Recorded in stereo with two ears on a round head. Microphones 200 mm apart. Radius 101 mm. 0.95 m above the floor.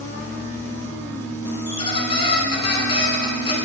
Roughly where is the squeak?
Left.